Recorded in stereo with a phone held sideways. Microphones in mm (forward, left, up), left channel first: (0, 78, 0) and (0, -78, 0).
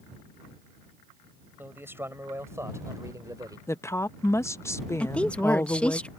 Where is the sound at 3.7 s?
15° left (ahead or behind).